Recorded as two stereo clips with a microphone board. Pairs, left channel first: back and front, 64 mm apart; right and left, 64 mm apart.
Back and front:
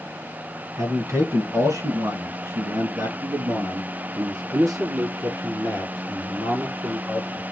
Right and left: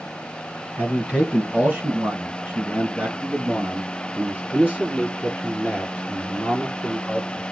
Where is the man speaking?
25° left, 2 m; by 7.4 s 20° left, 5.5 m.